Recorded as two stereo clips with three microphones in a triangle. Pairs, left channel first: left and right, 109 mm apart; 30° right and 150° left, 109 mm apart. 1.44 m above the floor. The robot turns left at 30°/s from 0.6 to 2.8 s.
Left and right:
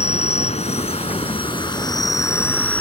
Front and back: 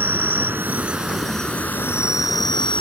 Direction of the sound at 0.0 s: 80° left.